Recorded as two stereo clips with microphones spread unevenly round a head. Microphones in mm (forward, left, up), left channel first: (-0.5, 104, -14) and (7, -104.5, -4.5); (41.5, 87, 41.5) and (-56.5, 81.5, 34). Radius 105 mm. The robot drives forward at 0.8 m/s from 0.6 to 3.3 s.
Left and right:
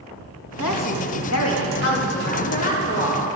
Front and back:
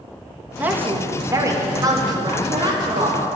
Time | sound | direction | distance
0.6 | a woman speaking | 110° left | 2 m